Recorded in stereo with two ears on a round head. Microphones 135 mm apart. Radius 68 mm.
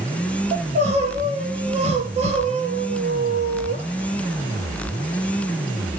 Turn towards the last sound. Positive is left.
turn(degrees=-45)  # may be behind; listen again after turning